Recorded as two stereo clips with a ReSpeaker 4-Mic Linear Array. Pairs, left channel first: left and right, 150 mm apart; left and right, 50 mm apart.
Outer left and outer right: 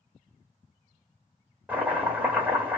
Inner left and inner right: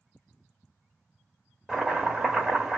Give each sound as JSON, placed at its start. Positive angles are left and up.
{"t": 1.7, "sound": "chopping", "side_deg": -10, "distance_m": 1.1}